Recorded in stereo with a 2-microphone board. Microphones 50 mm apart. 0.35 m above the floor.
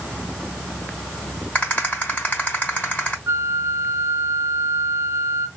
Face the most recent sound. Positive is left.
turn(degrees=-55)  # may be behind; listen again after turning